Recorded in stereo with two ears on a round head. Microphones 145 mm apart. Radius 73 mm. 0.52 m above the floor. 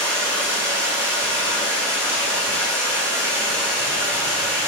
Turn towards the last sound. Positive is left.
turn(degrees=-15)  # may be behind; listen again after turning